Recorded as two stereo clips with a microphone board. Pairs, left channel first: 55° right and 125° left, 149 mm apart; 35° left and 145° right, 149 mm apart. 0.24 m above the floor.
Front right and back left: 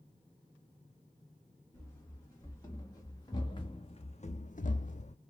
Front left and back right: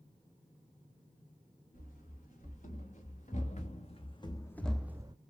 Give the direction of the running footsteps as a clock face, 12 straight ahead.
11 o'clock.